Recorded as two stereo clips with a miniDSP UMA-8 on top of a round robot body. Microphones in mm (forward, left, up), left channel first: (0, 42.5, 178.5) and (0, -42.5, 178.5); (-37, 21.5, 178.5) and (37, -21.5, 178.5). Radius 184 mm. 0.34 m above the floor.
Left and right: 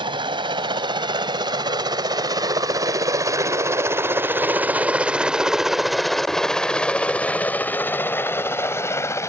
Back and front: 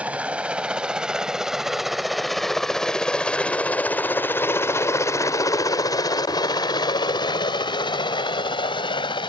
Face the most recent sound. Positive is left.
turn(degrees=145)